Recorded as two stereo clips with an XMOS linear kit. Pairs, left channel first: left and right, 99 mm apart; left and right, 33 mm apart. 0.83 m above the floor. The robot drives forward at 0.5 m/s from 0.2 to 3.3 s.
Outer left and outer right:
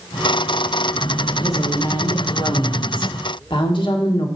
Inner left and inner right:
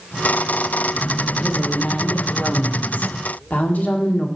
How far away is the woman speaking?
About 2 m.